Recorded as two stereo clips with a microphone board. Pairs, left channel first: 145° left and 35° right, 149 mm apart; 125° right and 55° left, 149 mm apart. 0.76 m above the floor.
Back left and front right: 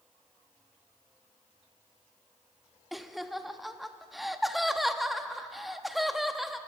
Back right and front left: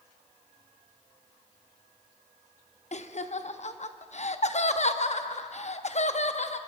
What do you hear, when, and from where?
2.9 s laughter: 125° right, 0.7 m